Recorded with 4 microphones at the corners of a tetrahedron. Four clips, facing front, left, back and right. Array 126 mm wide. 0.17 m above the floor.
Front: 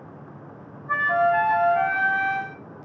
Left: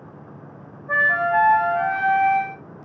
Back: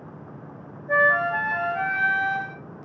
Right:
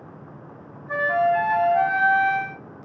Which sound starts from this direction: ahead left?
A flute, at 0.9 s.